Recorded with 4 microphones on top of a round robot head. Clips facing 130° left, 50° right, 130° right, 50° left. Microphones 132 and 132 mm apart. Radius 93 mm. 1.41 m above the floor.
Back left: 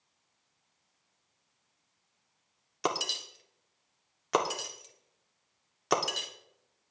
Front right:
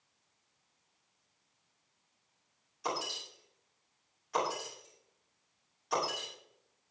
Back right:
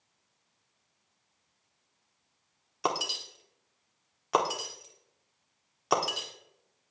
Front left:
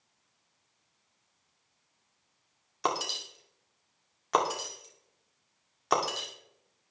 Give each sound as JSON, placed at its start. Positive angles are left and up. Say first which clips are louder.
{"t": 2.8, "sound": "breaking glass", "louder": "back left 4 dB, even", "azimuth_deg": 150, "distance_m": 2.0}